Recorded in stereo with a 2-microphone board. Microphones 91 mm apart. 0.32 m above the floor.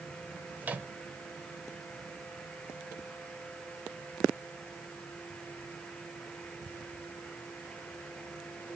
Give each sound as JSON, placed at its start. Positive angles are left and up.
{"t": 0.6, "sound": "a microwave", "side_deg": -20, "distance_m": 0.7}